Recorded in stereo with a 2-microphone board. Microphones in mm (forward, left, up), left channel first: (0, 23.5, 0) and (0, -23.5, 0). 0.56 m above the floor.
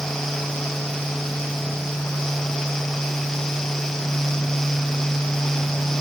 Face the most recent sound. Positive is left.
No sound to turn to.